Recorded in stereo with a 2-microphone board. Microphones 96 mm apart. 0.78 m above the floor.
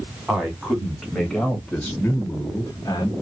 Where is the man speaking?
5° right (ahead or behind), 1.7 m; by 3.1 s 35° left (ahead or behind), 1.0 m.